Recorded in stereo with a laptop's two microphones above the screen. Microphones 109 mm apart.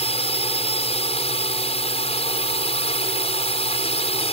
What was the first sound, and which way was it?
A drone, 65° left (ahead or behind).